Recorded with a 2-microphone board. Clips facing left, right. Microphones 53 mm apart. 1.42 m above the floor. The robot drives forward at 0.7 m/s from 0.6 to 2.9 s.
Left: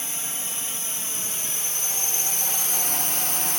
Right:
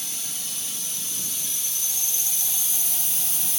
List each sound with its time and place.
0.0 s a drone: 35° left (ahead or behind); by 3.6 s 50° left (ahead or behind)